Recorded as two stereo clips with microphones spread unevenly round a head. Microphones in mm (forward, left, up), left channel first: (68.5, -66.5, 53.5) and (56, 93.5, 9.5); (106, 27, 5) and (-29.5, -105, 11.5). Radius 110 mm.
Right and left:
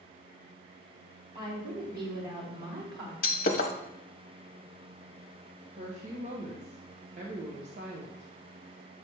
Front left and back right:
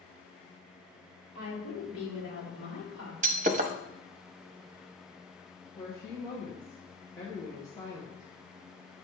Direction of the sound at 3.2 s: 90° right.